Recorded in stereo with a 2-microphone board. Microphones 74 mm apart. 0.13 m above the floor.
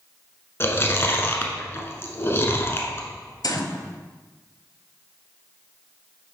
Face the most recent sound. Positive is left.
turn(degrees=60)  # may be behind; listen again after turning